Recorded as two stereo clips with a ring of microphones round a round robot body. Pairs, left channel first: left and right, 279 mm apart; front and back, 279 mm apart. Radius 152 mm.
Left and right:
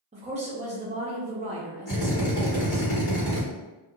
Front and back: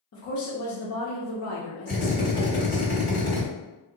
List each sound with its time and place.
0.1 s a woman speaking: 25° right, 0.8 m
1.9 s a drill: 55° left, 1.8 m